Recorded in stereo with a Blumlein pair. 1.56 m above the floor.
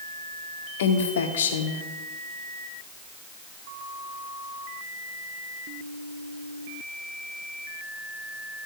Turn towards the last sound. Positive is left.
turn(degrees=60)